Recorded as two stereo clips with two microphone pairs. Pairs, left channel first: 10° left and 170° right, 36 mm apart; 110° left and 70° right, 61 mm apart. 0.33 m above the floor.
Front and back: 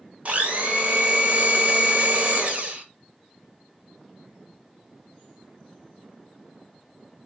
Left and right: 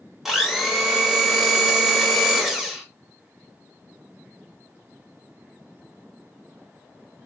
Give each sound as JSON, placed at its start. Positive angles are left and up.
{"t": 0.2, "sound": "a blender", "azimuth_deg": -160, "distance_m": 0.9}